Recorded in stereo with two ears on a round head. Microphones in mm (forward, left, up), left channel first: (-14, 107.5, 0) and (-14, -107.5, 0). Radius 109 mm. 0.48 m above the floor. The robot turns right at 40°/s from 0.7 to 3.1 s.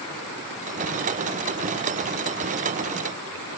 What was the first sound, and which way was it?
Only background noise.